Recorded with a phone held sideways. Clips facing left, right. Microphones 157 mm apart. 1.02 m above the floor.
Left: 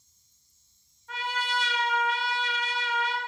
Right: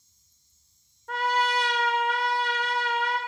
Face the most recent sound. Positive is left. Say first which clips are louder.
# right 7 dB
turn(degrees=-65)  # may be behind; listen again after turning